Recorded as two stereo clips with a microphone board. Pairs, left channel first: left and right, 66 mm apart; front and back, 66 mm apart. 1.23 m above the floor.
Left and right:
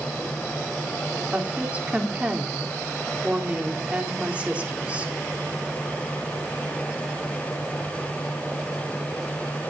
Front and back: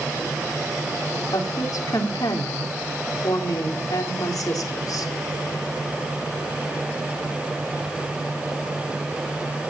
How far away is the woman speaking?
About 3.5 m.